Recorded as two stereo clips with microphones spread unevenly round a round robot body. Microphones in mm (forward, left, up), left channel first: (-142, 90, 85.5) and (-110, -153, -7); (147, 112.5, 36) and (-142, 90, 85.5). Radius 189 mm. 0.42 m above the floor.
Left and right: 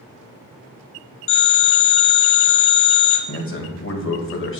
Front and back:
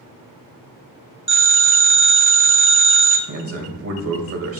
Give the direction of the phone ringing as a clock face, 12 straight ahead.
10 o'clock.